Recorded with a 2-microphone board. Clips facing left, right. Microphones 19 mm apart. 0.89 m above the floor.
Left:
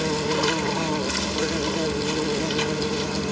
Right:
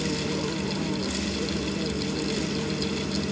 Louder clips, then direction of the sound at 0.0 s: Left 5 dB; 90° left.